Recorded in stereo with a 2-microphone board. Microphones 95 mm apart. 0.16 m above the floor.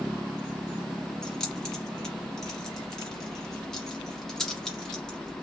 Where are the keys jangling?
5° left (ahead or behind), 1.3 m.